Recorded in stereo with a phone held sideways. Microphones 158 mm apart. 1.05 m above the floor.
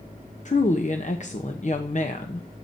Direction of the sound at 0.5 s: 50° left (ahead or behind).